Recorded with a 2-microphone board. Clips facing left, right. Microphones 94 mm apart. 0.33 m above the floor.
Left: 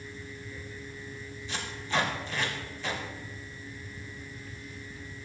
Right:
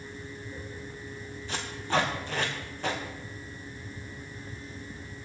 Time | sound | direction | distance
1.5 | tape being pulled | 55° right (ahead or behind) | 4.5 m